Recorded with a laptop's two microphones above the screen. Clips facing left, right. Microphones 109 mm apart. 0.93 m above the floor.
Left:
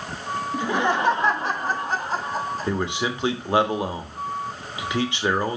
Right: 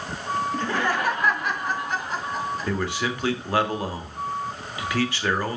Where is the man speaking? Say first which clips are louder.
Left 2 dB; 20° left (ahead or behind), 1.3 m.